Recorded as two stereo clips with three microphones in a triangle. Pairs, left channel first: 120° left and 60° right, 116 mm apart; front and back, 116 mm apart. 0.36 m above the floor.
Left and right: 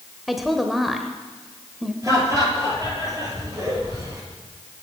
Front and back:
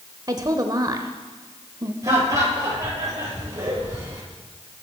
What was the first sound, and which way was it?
A woman speaking, 150° right.